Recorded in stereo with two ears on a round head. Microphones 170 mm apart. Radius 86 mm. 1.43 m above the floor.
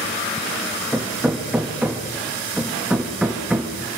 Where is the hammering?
5° right (ahead or behind), 1.6 m.